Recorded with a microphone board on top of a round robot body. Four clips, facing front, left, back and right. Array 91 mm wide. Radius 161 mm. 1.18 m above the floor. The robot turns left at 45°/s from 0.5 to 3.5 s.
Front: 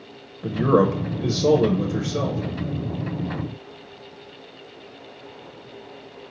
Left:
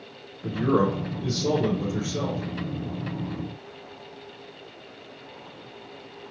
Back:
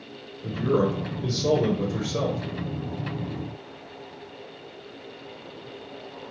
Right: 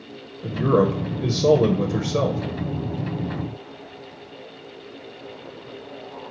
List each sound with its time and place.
0.4 s a man speaking: 15° right, 0.6 m; by 2.4 s 105° right, 0.6 m